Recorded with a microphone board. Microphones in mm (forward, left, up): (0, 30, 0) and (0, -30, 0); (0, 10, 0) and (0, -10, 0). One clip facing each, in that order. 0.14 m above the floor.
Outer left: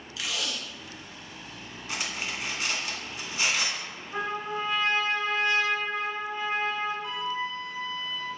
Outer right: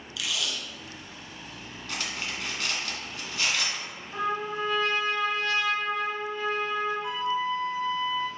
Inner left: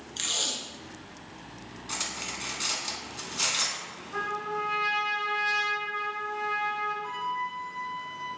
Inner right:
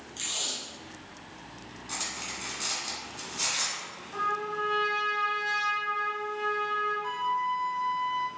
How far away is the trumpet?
About 1.3 m.